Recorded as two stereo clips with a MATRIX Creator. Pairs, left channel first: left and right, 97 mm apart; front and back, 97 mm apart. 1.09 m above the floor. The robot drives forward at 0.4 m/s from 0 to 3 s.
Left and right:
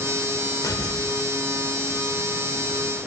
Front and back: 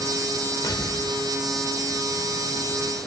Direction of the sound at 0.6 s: 45° left.